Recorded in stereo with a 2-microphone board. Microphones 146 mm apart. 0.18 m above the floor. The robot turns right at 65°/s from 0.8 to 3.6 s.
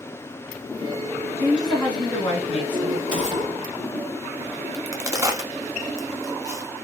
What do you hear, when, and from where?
1.4 s a woman speaking: 25° right, 1.5 m; by 3.0 s 80° left, 1.5 m
3.1 s a gunshot: 80° left, 0.7 m; by 4.0 s 110° left, 0.7 m
4.7 s a crack: 20° right (ahead or behind), 0.5 m